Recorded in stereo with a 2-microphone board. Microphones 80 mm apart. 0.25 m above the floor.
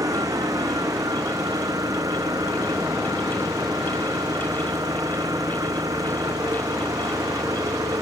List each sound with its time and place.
0.0 s an engine running: 45° right (ahead or behind)